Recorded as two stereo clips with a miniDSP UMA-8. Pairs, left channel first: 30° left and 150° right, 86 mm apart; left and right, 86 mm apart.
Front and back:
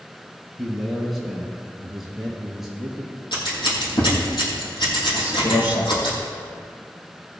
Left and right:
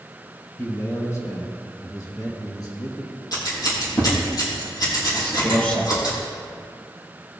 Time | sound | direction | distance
0.6 | a man speaking | 120° left | 1.6 m
3.3 | scissors | 50° left | 5 m
5.1 | a man speaking | 15° left | 3.5 m